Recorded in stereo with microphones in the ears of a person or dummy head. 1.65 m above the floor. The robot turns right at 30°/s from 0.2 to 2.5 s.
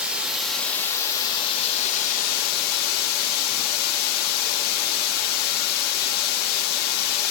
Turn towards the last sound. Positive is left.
turn(degrees=65)